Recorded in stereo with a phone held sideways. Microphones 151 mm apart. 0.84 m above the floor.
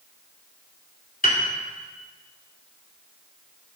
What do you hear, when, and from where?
1.2 s a piano: 65° left (ahead or behind), 2 m